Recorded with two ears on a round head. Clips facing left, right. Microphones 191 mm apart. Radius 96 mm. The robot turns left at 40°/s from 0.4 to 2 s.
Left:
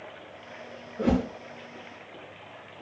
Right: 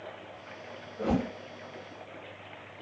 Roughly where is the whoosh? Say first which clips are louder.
Left 4 dB; left.